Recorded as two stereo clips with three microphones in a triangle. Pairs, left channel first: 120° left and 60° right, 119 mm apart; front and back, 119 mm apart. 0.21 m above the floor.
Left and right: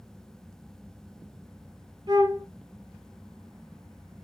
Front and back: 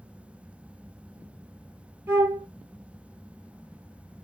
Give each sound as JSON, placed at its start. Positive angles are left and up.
{"t": 2.1, "sound": "a flute", "azimuth_deg": -115, "distance_m": 1.9}